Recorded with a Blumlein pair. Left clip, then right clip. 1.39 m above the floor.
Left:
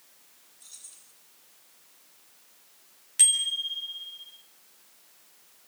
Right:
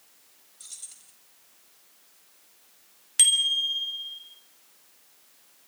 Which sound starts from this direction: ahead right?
Keys jangling, at 0.6 s.